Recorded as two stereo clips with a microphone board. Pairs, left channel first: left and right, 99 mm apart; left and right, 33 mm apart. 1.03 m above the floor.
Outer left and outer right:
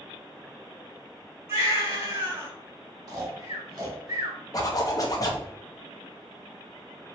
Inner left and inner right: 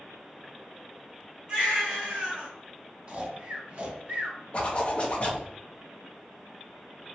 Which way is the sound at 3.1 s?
40° right (ahead or behind).